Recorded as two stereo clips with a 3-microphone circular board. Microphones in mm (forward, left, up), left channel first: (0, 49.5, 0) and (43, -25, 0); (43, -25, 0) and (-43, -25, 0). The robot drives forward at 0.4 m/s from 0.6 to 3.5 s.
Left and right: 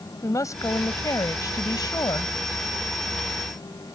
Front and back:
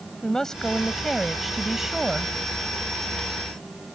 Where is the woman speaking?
85° left; by 2.3 s 105° left.